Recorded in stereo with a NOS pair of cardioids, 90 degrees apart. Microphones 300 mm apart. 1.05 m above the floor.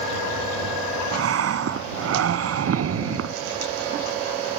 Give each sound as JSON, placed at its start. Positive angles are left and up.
{"t": 1.1, "sound": "breathing", "azimuth_deg": -55}